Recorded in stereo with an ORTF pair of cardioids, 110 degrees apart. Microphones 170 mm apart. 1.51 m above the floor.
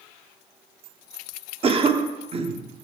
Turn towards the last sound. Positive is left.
turn(degrees=-35)